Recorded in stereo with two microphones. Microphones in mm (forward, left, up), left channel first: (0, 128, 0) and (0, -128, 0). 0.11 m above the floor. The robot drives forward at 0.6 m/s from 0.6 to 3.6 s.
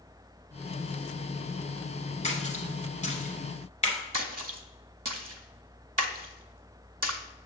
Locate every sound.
2.2 s a splash: 25° left (ahead or behind), 1.2 m
4.1 s a splash: 70° right (ahead or behind), 0.6 m